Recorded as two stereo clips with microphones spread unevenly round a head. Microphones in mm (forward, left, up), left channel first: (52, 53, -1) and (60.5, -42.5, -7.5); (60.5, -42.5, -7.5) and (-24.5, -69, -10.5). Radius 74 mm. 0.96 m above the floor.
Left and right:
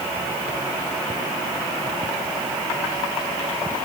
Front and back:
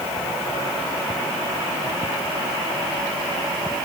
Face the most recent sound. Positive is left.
No sound to turn to.